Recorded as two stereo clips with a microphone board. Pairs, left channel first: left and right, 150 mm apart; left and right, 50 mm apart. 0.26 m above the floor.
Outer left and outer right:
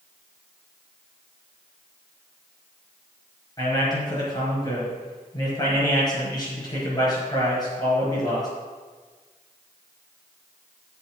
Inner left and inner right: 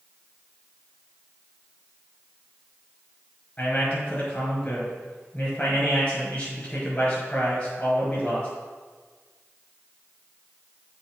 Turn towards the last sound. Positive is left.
turn(degrees=25)  # may be behind; listen again after turning